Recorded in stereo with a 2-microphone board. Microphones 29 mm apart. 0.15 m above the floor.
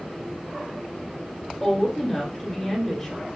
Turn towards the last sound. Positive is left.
turn(degrees=15)  # may be behind; listen again after turning